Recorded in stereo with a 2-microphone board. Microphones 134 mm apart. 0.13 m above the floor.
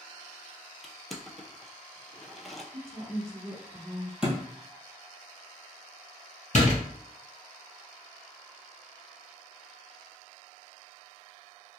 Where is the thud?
5° right (ahead or behind), 1.6 m.